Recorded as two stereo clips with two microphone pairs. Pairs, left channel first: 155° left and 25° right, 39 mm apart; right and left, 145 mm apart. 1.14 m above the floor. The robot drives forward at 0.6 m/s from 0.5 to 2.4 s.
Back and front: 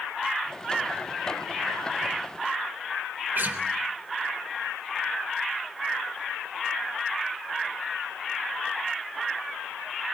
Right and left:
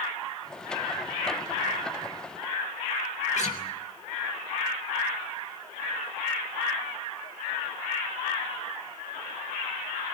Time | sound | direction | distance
3.4 | a guitar | 55° right | 3 m